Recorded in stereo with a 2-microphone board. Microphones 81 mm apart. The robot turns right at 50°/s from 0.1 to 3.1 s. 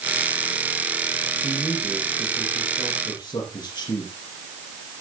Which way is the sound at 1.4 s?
15° right.